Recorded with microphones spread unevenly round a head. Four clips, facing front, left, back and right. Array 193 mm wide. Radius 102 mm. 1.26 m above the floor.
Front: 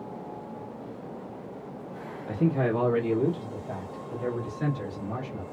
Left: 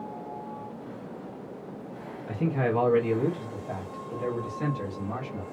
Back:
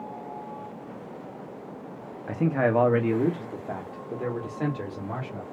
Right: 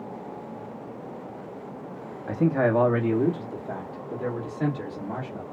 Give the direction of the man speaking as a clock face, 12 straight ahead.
5 o'clock.